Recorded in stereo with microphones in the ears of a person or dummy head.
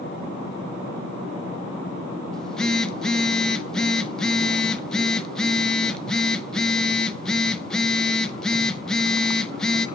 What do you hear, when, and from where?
2.3 s a phone buzzing: 5° left (ahead or behind), 0.7 m